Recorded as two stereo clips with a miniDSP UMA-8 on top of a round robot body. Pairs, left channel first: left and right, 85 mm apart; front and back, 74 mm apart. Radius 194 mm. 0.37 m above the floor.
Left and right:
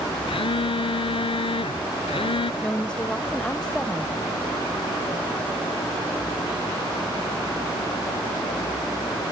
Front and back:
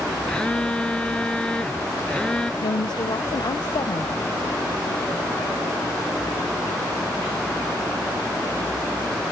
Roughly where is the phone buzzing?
Left.